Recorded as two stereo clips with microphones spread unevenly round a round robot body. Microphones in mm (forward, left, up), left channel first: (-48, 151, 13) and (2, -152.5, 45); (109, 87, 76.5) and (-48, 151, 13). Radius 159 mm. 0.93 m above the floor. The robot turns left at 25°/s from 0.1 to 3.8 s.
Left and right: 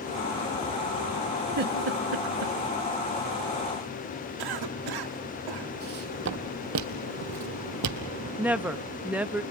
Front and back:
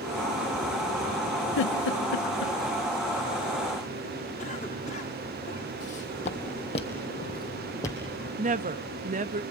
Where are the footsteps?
30° right, 1.6 m; by 8.0 s 85° right, 1.5 m.